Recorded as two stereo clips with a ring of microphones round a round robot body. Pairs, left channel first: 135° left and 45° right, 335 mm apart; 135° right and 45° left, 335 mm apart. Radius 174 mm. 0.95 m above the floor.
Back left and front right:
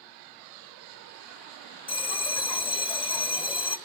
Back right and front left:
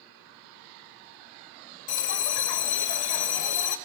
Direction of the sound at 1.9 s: 150° right.